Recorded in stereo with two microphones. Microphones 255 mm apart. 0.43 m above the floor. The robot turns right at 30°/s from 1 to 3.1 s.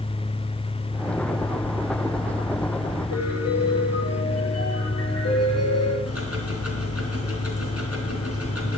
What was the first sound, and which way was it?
A piano, 75° left (ahead or behind).